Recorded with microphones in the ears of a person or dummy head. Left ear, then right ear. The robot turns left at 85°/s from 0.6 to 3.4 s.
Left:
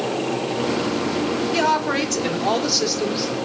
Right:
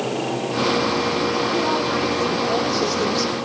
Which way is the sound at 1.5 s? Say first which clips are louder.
Left 1 dB; 145° left.